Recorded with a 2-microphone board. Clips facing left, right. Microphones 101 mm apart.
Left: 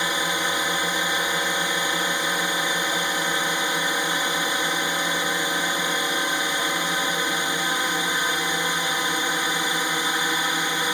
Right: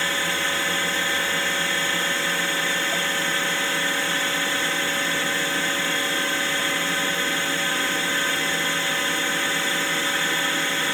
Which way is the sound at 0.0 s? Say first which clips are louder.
Left 1 dB; 15° left (ahead or behind).